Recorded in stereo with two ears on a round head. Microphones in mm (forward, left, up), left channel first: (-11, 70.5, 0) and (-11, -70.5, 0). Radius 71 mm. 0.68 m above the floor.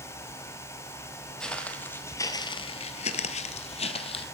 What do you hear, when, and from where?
1.4 s footsteps: 5° left (ahead or behind), 1.4 m; by 4.2 s 35° left (ahead or behind), 1.4 m